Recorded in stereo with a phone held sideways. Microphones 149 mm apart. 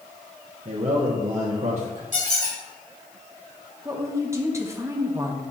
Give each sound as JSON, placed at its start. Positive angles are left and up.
{"t": 0.7, "sound": "a man speaking", "side_deg": -50, "distance_m": 1.0}
{"t": 2.1, "sound": "a squeak", "side_deg": 55, "distance_m": 3.0}
{"t": 3.9, "sound": "a woman speaking", "side_deg": -20, "distance_m": 0.9}